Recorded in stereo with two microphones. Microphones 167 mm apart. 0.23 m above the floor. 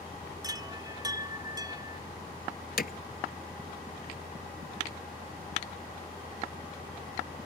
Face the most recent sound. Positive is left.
turn(degrees=65)  # may be behind; listen again after turning